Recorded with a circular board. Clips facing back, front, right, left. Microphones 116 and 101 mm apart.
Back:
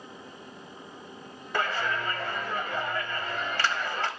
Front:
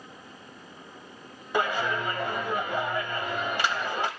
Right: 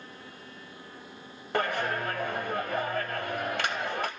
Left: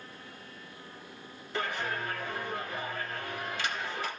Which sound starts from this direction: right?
A clap, at 1.5 s.